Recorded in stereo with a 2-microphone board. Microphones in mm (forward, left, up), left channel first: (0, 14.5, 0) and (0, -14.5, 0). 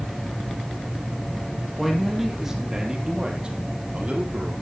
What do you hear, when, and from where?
1.8 s a man speaking: centre (ahead or behind), 3.5 m; by 4.5 s 55° right (ahead or behind), 4.5 m